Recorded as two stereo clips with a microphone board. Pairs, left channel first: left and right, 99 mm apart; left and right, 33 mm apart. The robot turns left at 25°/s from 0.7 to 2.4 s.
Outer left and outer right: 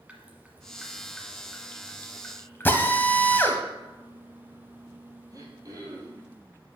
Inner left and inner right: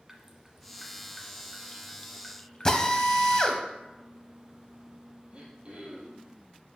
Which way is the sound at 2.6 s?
20° left (ahead or behind).